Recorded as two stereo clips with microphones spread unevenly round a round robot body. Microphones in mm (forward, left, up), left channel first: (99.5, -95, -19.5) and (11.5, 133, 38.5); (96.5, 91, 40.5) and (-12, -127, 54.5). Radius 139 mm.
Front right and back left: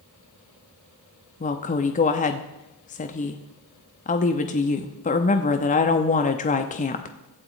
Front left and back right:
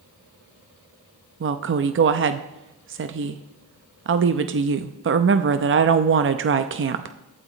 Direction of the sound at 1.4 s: 100° right.